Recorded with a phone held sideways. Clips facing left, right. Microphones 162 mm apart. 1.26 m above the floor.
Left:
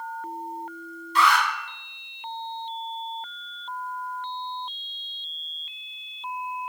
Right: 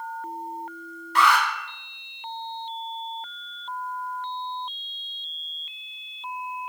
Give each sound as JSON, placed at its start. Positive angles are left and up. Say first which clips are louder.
{"t": 1.1, "sound": "an alarm", "louder": "right 1 dB", "side_deg": -70, "distance_m": 3.0}